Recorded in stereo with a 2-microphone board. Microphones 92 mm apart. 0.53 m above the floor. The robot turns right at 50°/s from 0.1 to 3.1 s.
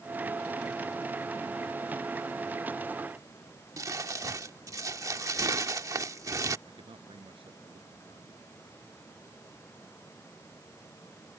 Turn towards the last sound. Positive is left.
turn(degrees=-80)